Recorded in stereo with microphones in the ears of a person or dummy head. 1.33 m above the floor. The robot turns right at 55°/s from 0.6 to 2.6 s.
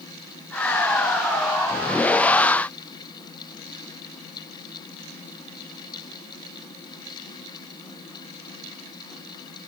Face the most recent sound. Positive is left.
No sound to turn to.